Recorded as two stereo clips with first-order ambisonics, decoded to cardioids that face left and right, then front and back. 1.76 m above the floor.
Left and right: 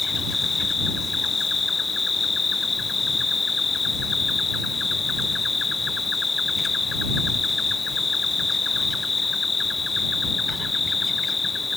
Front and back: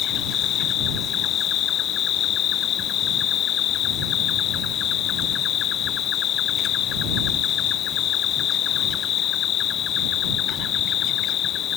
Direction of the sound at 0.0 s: 20° left.